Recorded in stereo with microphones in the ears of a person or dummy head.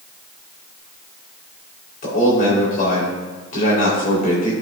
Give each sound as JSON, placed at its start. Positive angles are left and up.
{"t": 2.0, "sound": "a man speaking", "side_deg": 45, "distance_m": 3.0}